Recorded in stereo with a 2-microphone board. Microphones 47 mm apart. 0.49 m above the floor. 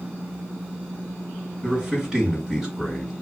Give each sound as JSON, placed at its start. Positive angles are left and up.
{"t": 1.6, "sound": "a man speaking", "side_deg": -15, "distance_m": 2.0}